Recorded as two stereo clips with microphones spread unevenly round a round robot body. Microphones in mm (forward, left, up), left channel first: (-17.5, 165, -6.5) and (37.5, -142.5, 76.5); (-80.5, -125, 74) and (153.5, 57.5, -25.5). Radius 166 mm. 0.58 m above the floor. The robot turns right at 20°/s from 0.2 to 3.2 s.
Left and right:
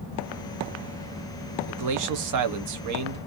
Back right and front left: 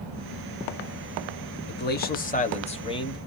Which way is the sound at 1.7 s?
75° right.